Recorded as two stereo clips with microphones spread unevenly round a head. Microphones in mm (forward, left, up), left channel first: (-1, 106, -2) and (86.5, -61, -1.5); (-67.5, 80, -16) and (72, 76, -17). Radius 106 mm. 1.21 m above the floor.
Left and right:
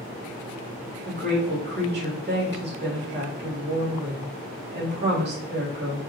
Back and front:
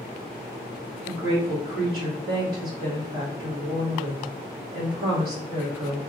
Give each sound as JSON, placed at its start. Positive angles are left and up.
{"t": 1.1, "sound": "a woman speaking", "azimuth_deg": -30, "distance_m": 1.5}